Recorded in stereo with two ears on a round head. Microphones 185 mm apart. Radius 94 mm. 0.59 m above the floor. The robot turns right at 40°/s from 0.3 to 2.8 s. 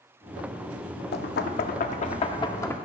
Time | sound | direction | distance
1.1 | knocking | 100° left | 0.6 m